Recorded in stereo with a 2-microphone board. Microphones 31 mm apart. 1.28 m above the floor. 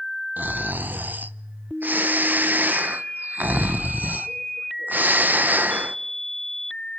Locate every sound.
0.4 s snoring: 80° right, 0.6 m